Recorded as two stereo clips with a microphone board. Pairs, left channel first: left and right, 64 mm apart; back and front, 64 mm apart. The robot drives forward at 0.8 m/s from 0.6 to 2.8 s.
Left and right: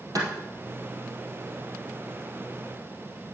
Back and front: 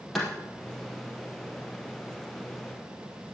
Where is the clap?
90° right, 3.5 m.